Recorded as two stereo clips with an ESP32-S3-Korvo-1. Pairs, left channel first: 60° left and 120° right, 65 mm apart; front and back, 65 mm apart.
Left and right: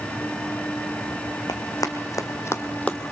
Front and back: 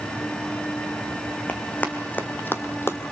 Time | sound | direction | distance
1.5 | running footsteps | 65° left | 1.9 m